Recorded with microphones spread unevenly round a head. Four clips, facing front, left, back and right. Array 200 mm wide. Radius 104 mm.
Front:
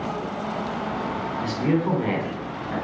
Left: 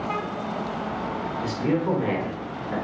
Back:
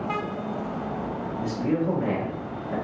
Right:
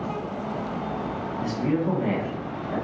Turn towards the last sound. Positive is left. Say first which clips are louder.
# even, front 2 dB
turn(degrees=25)